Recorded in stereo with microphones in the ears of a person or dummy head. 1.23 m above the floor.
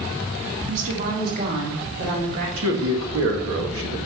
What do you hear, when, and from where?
0.7 s a woman speaking: 40° right (ahead or behind), 1.7 m; by 2.5 s 65° right (ahead or behind), 3.5 m
2.6 s a man speaking: 75° right (ahead or behind), 1.9 m